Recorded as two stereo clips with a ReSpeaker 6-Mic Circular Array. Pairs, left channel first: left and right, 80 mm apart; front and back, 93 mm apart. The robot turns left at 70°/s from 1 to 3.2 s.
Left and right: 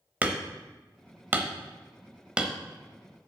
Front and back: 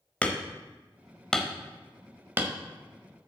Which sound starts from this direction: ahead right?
Hammering, at 0.2 s.